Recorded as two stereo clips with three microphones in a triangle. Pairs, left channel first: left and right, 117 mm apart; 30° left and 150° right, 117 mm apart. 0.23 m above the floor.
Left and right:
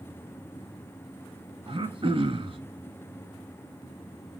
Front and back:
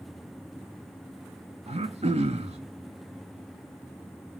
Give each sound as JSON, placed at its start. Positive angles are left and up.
{"t": 1.7, "sound": "throat clearing", "azimuth_deg": -130, "distance_m": 0.6}